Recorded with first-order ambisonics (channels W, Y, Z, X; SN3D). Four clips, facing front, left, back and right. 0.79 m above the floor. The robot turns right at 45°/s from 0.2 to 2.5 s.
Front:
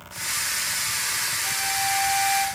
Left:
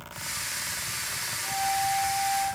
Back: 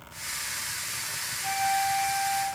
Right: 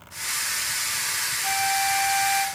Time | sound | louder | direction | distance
1.4 | a flute | right 3 dB, back 3 dB | 105° right | 1.1 m